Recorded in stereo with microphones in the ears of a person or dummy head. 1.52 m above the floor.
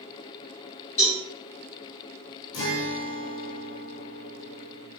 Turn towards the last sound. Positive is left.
turn(degrees=65)  # may be behind; listen again after turning